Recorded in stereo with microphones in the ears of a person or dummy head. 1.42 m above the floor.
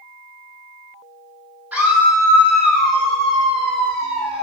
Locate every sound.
1.7 s a scream: 10° right (ahead or behind), 2 m; by 4.4 s centre (ahead or behind), 4 m